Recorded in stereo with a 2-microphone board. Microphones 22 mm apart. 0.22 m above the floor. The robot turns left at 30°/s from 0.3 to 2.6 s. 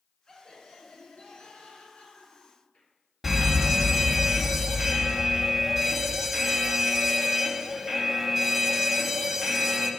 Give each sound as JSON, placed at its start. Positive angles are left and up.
{"t": 0.3, "sound": "laughter", "azimuth_deg": 140, "distance_m": 4.5}
{"t": 3.2, "sound": "a fire alarm", "side_deg": -5, "distance_m": 2.5}